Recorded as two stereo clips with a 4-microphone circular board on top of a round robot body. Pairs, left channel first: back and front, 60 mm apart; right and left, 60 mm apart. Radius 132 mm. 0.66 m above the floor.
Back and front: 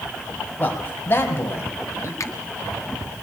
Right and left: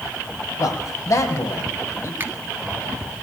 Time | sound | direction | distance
0.6 | a man speaking | 120° right | 4.5 m
2.2 | a finger snap | 145° left | 2.5 m